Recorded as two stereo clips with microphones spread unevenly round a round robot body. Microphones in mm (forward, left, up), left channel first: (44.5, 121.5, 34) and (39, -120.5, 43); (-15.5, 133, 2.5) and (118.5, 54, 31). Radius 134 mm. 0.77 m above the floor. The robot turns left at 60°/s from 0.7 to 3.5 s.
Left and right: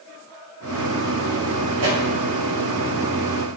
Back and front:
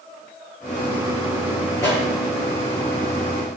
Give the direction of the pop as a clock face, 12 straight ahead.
4 o'clock.